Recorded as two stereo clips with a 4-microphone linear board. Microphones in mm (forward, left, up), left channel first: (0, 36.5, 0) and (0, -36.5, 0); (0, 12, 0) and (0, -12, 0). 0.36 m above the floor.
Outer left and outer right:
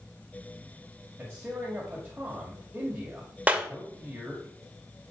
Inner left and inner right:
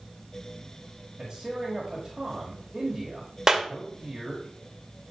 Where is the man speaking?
20° right (ahead or behind), 1.8 m.